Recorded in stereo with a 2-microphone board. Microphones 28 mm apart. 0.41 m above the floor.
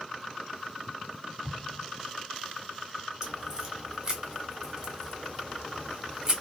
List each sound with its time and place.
1.4 s an explosion: 15° right (ahead or behind), 1.2 m
3.2 s a crack: 25° right (ahead or behind), 1.1 m